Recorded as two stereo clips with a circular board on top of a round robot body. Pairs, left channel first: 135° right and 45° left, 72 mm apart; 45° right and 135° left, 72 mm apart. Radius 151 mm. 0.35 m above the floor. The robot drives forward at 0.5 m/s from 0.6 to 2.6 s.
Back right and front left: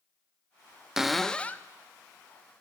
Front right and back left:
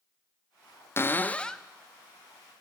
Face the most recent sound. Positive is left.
turn(degrees=-165)